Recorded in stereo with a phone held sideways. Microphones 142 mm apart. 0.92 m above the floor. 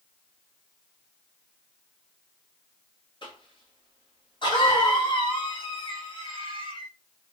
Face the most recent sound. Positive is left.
turn(degrees=35)  # may be behind; listen again after turning